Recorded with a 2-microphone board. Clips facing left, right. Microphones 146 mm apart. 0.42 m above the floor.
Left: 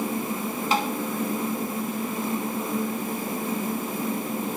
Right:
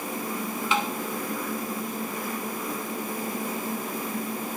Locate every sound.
0.7 s tapping: 40° left (ahead or behind), 1.1 m